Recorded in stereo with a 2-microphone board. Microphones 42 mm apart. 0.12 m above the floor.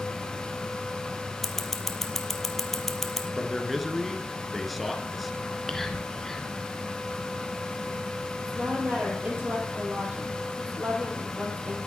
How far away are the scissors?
About 1.2 m.